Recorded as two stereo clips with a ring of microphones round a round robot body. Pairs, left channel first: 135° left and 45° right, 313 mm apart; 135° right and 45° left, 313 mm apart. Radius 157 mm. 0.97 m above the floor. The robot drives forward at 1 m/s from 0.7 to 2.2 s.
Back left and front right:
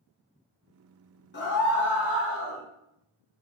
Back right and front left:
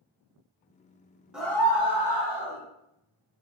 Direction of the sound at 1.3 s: 130° left.